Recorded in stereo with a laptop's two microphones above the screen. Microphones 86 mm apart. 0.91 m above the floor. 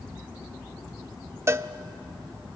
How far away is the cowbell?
About 0.6 m.